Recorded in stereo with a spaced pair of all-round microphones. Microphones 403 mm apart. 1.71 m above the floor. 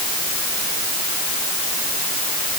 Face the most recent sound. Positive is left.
No sound to turn to.